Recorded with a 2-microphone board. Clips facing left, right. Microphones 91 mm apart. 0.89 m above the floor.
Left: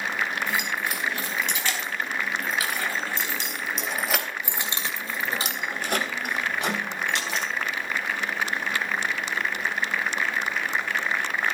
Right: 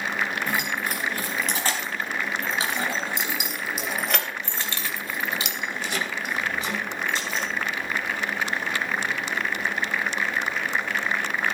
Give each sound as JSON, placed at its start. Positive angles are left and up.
{"t": 0.5, "sound": "keys jangling", "side_deg": -45, "distance_m": 5.5}